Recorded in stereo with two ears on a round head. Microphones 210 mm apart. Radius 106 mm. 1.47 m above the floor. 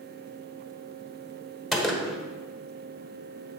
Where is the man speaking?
No man speaking in this recording.